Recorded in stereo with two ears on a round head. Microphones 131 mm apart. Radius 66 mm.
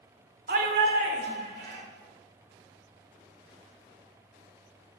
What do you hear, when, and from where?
0.5 s a shout: 65° right (ahead or behind), 1.9 m; by 1.8 s 70° right (ahead or behind), 2.5 m